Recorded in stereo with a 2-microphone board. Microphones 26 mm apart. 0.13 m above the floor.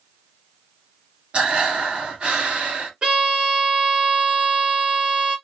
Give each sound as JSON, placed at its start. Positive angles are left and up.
{"t": 1.3, "sound": "breathing", "side_deg": -45, "distance_m": 1.6}
{"t": 3.0, "sound": "a violin", "side_deg": -35, "distance_m": 1.7}